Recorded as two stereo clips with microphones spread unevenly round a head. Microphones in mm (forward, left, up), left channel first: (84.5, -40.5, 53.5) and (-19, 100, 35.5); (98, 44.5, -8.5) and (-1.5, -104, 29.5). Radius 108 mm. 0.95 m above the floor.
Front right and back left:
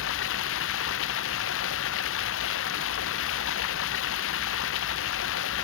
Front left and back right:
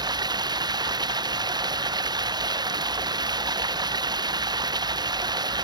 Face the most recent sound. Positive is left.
turn(degrees=-55)